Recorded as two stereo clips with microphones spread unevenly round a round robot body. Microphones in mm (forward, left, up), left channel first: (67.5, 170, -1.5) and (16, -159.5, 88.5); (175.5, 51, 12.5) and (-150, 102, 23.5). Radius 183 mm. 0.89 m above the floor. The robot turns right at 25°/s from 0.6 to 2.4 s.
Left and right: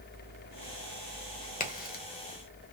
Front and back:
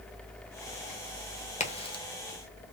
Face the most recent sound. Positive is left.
turn(degrees=70)